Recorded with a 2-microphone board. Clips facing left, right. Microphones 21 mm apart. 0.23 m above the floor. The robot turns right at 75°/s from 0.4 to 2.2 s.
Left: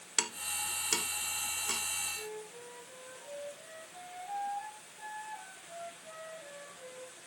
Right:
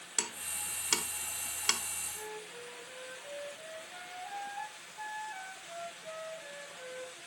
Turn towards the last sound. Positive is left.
turn(degrees=-60)  # may be behind; listen again after turning